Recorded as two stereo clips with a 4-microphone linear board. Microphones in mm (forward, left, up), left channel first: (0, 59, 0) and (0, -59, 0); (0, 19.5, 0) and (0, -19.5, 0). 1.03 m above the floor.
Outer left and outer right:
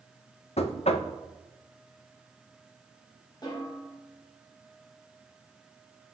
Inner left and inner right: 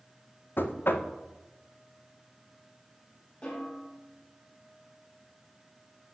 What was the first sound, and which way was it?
Knocking, 60° left (ahead or behind).